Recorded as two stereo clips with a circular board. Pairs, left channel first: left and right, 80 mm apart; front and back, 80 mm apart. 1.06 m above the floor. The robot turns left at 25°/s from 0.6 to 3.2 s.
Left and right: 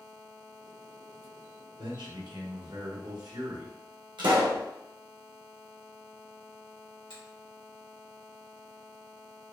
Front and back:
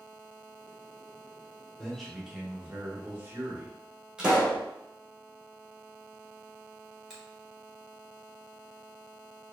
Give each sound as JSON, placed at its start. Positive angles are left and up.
{"t": 1.8, "sound": "a man speaking", "azimuth_deg": -85, "distance_m": 0.9}
{"t": 4.2, "sound": "a pop", "azimuth_deg": -100, "distance_m": 0.9}
{"t": 7.1, "sound": "a finger snap", "azimuth_deg": 90, "distance_m": 1.1}